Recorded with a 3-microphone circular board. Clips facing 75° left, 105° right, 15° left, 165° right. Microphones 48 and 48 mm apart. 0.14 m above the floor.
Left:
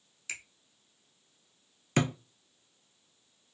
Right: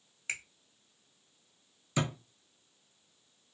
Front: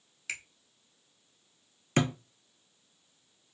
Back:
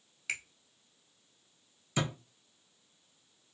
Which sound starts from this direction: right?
A finger snap, at 0.3 s.